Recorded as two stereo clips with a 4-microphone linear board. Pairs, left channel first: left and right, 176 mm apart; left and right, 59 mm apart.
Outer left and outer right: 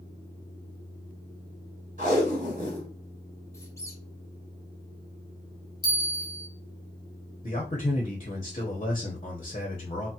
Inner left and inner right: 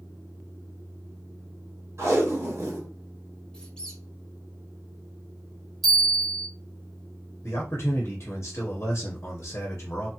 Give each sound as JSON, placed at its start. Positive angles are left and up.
{"t": 2.0, "sound": "tape being pulled", "side_deg": -50, "distance_m": 1.8}
{"t": 3.5, "sound": "a squeak", "side_deg": 15, "distance_m": 0.8}
{"t": 5.8, "sound": "a bell", "side_deg": -5, "distance_m": 1.6}
{"t": 7.4, "sound": "a man speaking", "side_deg": 35, "distance_m": 0.8}